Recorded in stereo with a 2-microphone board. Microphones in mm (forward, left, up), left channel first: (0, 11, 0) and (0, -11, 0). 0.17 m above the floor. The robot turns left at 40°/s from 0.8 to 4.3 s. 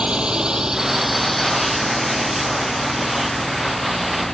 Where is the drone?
50° right (ahead or behind); by 4.3 s 25° left (ahead or behind).